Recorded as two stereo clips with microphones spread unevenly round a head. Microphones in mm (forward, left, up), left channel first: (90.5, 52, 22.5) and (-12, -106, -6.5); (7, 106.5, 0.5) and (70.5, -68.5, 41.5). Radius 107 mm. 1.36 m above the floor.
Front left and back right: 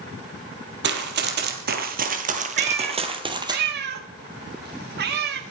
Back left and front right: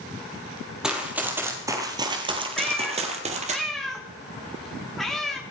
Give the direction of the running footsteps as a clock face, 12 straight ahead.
5 o'clock.